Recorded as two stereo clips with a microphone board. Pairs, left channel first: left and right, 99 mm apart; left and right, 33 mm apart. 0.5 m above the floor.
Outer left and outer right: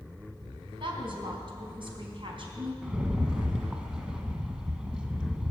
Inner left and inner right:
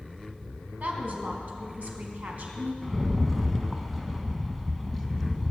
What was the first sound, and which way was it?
A woman speaking, 55° right (ahead or behind).